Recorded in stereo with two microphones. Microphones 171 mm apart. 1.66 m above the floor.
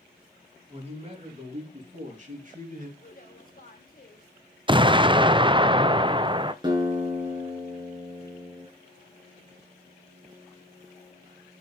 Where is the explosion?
30° right (ahead or behind), 0.5 m.